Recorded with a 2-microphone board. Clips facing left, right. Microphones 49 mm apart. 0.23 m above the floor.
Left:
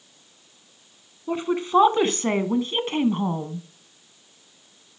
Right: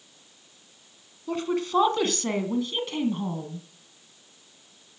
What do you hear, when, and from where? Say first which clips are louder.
1.3 s a woman speaking: left 3 dB; 15° left (ahead or behind), 2 m; by 3.7 s 50° left (ahead or behind), 1.8 m